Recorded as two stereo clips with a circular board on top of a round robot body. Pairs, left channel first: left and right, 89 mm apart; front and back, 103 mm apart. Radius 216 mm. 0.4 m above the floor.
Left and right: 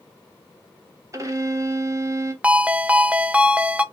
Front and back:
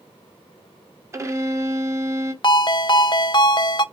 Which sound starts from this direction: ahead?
A ringtone, at 2.4 s.